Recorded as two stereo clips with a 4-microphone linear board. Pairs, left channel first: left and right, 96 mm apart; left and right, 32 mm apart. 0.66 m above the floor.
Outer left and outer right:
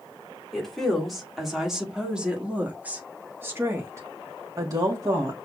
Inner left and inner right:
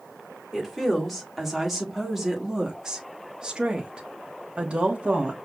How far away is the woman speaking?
About 2 m.